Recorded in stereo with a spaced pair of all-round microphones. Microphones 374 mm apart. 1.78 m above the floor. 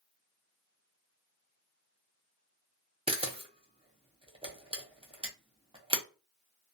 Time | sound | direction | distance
3.1 | a camera shutter | 15° right (ahead or behind) | 0.7 m